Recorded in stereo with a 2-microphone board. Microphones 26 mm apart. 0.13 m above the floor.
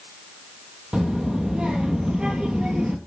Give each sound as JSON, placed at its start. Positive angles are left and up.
{"t": 0.9, "sound": "a child speaking", "side_deg": -35, "distance_m": 3.0}